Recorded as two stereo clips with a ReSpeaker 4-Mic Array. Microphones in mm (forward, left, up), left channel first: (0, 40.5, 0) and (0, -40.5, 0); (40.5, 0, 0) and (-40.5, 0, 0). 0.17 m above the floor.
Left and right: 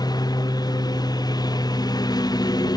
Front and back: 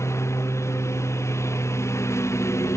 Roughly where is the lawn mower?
Ahead left.